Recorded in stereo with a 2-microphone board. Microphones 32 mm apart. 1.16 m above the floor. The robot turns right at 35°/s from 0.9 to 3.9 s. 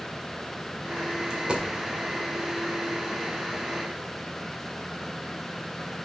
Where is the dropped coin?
25° right (ahead or behind), 1.7 m; by 1.6 s 35° right (ahead or behind), 1.7 m.